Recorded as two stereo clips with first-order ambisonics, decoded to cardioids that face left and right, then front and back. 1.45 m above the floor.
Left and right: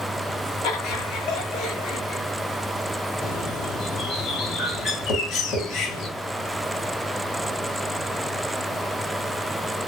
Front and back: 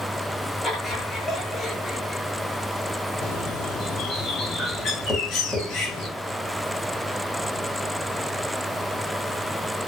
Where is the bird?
55° left, 1.8 m.